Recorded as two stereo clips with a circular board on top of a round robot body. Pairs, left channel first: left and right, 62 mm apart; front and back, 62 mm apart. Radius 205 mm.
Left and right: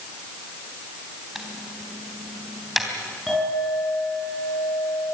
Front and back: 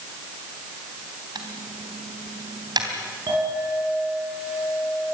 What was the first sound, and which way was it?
Typing on a keyboard, 175° right.